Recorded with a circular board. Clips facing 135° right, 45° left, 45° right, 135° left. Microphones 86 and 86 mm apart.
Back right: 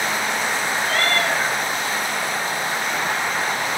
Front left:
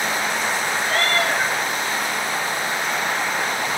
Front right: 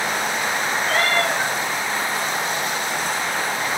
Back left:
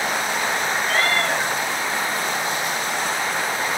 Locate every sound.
0.8 s a cat meowing: 5° right, 3 m